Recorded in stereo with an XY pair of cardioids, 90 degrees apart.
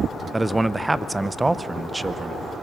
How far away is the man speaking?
About 0.6 m.